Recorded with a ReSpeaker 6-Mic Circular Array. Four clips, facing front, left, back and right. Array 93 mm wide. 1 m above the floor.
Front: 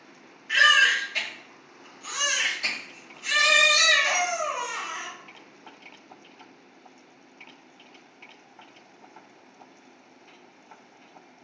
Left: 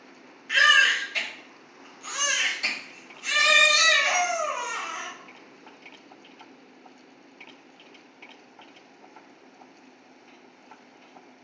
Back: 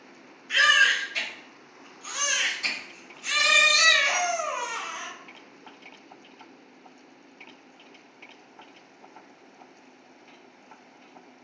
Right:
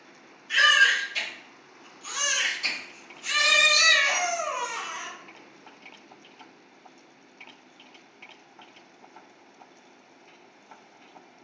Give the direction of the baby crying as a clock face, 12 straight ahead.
10 o'clock.